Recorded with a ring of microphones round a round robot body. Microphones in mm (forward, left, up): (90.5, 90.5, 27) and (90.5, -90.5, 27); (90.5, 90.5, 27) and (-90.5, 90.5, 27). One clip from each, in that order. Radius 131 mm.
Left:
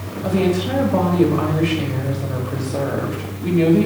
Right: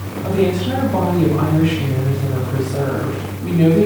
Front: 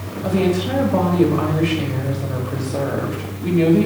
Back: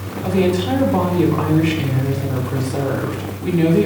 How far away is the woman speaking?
About 1.6 m.